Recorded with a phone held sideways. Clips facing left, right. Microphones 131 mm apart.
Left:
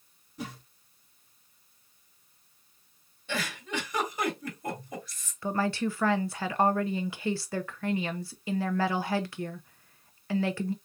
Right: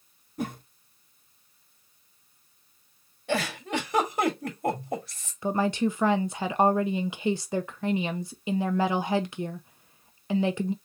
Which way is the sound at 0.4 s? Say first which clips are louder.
Right 7 dB; 60° right (ahead or behind).